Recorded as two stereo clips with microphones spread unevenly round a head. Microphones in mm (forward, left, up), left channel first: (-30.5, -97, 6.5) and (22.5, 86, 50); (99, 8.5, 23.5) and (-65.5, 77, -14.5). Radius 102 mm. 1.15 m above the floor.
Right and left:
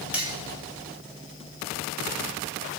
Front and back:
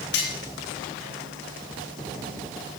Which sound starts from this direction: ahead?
Cutlery clinking, at 0.1 s.